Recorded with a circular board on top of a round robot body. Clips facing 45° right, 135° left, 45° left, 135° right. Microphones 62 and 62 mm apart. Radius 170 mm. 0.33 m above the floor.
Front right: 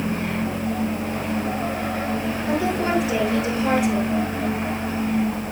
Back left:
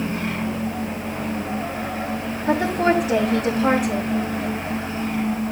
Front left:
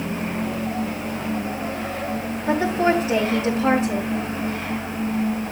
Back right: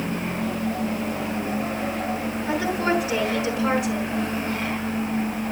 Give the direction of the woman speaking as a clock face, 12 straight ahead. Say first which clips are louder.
Back left 4 dB, front left 5 dB; 9 o'clock.